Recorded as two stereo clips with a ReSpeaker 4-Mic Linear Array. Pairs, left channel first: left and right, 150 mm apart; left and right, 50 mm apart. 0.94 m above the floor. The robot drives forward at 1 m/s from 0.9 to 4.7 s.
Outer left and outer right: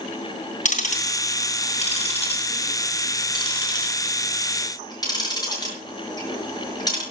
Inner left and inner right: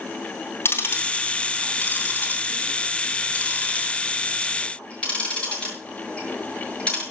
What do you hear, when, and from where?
0.7 s ticking: 55° left (ahead or behind), 3 m; by 7.0 s 25° left (ahead or behind), 6 m